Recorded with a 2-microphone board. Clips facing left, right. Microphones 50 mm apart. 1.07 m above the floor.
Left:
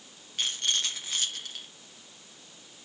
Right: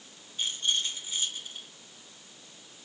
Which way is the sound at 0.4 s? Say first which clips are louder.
Even; 75° left (ahead or behind).